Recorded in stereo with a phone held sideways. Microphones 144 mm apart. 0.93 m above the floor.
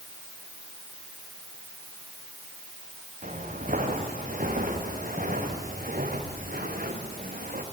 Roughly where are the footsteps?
Right.